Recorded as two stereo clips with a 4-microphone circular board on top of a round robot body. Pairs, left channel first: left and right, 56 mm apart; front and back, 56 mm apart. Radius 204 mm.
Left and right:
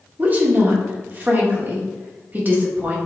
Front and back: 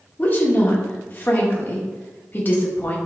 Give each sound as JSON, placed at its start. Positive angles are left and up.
{"t": 0.2, "sound": "a woman speaking", "azimuth_deg": -45, "distance_m": 1.9}